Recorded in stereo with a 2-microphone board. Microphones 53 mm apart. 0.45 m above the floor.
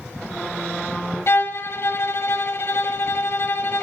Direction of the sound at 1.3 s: 55° left (ahead or behind).